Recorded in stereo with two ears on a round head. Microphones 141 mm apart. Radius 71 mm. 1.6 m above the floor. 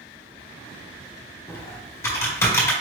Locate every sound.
1.5 s typing on a keyboard: 15° left (ahead or behind), 1.3 m